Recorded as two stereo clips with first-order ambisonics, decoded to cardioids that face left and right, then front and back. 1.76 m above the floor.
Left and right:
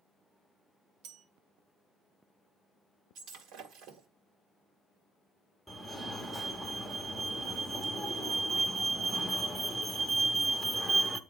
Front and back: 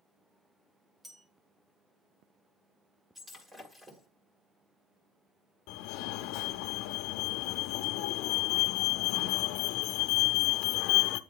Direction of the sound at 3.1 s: 105° right.